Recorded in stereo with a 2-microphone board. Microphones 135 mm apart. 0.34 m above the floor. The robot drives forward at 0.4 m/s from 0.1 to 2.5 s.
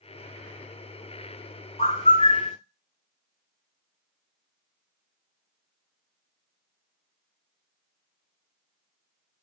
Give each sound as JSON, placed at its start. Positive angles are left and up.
{"t": 1.8, "sound": "a bird", "side_deg": 50, "distance_m": 1.0}